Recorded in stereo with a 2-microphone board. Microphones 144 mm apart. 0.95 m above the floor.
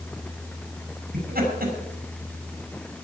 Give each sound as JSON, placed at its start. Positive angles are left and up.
{"t": 1.1, "sound": "laughter", "side_deg": -80, "distance_m": 6.5}